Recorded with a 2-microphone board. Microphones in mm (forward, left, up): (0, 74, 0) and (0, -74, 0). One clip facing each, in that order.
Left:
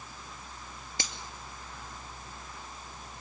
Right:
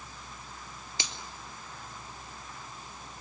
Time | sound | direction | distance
1.0 | a finger snap | 50° left (ahead or behind) | 2 m